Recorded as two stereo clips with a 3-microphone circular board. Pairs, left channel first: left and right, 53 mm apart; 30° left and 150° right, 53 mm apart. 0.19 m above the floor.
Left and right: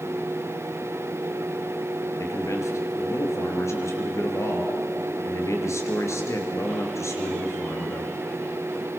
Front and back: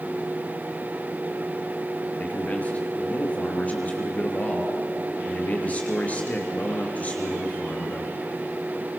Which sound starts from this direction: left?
A man speaking, at 2.2 s.